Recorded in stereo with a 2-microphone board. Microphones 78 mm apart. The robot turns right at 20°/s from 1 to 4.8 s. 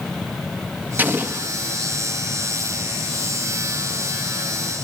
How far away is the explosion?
About 1.1 m.